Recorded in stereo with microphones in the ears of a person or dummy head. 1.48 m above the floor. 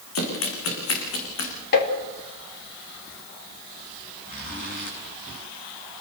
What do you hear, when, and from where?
0.1 s running footsteps: 80° left, 8 m; by 1.5 s 75° left (ahead or behind), 8.5 m
1.7 s tapping: 55° left (ahead or behind), 3 m
4.2 s a zipper: 40° left (ahead or behind), 7.5 m